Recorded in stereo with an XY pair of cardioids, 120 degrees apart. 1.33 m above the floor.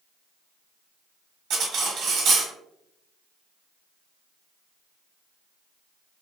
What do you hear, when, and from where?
1.5 s cutlery clinking: 65° right, 1.3 m